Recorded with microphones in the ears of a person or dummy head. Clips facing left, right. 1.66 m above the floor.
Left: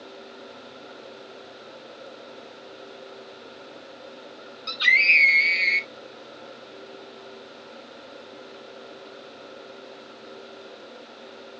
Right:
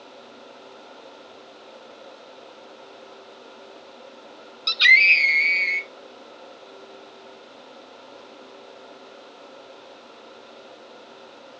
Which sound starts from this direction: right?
A scream, at 4.7 s.